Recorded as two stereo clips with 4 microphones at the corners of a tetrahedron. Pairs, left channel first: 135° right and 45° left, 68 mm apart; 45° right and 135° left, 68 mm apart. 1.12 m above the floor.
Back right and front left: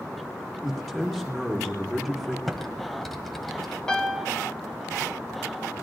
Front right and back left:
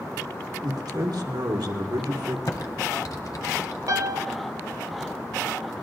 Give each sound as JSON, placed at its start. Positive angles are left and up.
{"t": 0.6, "sound": "a man speaking", "azimuth_deg": 135, "distance_m": 2.0}
{"t": 2.5, "sound": "typing on a keyboard", "azimuth_deg": -45, "distance_m": 1.5}
{"t": 3.9, "sound": "a piano", "azimuth_deg": 150, "distance_m": 1.3}